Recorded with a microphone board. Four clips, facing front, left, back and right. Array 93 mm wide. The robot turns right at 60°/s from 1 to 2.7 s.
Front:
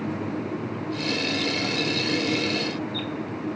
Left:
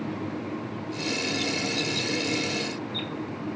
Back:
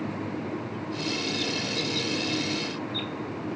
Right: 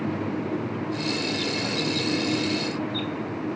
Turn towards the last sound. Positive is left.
No sound to turn to.